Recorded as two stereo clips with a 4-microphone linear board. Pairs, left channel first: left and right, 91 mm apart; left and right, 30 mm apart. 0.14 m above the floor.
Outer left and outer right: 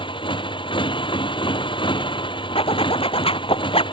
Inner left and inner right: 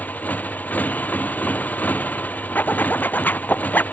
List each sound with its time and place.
0.0 s a motorcycle: 65° left (ahead or behind)
2.5 s a zipper: 85° left